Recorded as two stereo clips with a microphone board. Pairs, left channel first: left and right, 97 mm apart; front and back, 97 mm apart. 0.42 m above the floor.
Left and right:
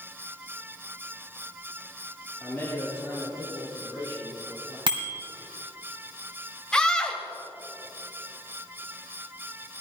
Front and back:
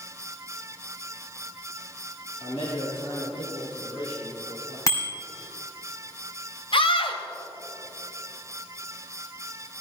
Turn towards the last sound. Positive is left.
turn(degrees=10)